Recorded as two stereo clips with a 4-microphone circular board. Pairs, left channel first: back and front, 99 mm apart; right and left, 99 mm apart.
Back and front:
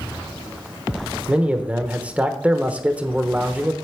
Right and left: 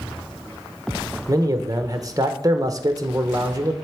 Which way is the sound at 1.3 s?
70° left.